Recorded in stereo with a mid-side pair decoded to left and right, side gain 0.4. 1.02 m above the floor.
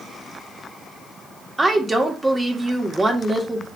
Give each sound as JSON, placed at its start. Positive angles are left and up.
{"t": 1.6, "sound": "a woman speaking", "azimuth_deg": -20, "distance_m": 2.0}